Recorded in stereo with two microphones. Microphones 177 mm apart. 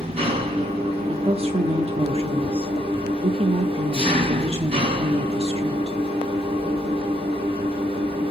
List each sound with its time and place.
0.0 s an engine running: 35° right (ahead or behind), 5 m
1.1 s a woman speaking: 35° right (ahead or behind), 0.8 m